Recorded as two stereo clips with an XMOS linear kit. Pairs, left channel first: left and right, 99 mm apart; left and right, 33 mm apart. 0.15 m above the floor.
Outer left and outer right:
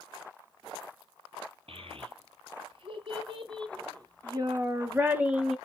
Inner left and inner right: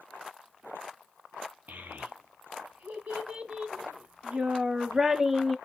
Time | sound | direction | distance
1.7 | a child speaking | 70° right (ahead or behind) | 2 m